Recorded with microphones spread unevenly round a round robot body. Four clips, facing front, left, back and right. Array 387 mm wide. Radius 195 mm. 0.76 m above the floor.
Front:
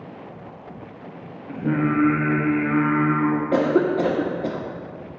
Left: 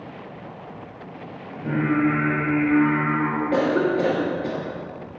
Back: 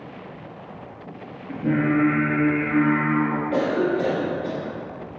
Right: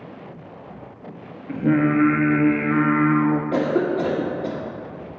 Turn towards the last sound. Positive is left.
turn(degrees=5)